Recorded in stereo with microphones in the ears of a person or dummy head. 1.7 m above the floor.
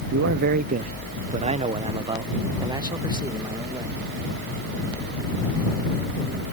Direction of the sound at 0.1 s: 60° right (ahead or behind).